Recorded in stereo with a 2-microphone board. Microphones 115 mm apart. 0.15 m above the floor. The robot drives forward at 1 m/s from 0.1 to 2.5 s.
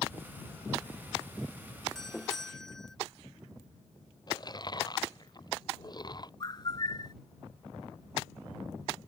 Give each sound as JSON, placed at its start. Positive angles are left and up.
{"t": 1.9, "sound": "a doorbell", "side_deg": 5}
{"t": 4.3, "sound": "chewing", "side_deg": 35}
{"t": 6.4, "sound": "a bird", "side_deg": 40}